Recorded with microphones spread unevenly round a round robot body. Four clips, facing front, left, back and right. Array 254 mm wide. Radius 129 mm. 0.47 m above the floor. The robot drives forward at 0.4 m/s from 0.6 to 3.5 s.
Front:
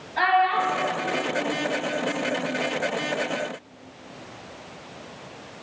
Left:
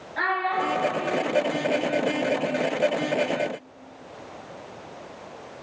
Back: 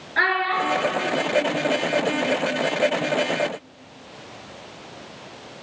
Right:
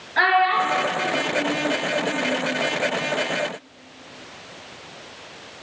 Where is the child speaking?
145° right, 4.5 m; by 2.4 s 150° right, 5 m.